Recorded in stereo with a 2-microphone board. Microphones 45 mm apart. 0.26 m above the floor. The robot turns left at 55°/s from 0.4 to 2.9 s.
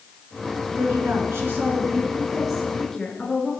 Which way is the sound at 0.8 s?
80° right.